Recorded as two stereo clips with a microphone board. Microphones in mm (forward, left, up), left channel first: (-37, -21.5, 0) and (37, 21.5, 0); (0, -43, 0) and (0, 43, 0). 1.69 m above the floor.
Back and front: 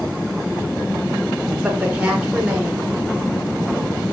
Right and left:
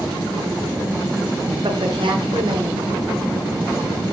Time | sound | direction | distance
1.6 | a woman speaking | 105° left | 7 m